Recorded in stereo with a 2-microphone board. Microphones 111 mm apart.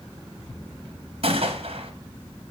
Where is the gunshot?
60° right (ahead or behind), 0.9 m.